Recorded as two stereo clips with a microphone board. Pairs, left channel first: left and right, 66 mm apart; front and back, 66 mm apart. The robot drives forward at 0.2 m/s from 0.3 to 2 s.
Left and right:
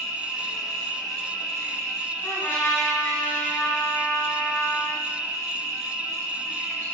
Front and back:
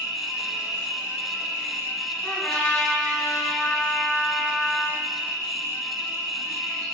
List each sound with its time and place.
0.0 s an insect: 140° left, 0.8 m; by 6.9 s 150° left, 1.0 m
2.2 s a trumpet: 65° left, 0.6 m